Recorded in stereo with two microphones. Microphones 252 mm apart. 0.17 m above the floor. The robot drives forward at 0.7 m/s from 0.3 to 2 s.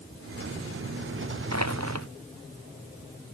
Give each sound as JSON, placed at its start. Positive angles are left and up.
{"t": 1.5, "sound": "crushing", "side_deg": -85}